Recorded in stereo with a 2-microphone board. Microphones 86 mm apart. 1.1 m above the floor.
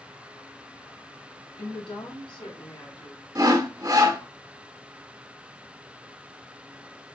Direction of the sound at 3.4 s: 45° right (ahead or behind).